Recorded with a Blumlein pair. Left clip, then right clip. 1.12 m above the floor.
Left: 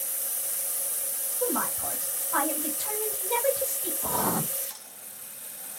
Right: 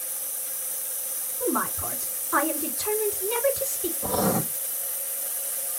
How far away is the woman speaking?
About 3 m.